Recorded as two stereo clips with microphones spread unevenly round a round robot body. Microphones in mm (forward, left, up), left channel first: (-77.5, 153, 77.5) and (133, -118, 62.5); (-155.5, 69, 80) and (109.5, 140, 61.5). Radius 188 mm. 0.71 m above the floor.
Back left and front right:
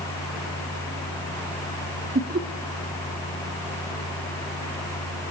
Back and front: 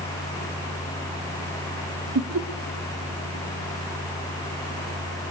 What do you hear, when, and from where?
2.1 s laughter: 5° left, 1.4 m